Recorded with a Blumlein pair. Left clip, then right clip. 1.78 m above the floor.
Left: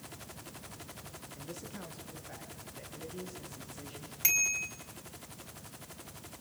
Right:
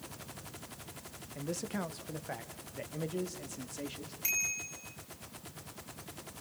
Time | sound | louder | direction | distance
1.4 | a man speaking | right 9 dB | 30° right | 1.5 m
4.2 | a bicycle bell | left 4 dB | 25° left | 4.5 m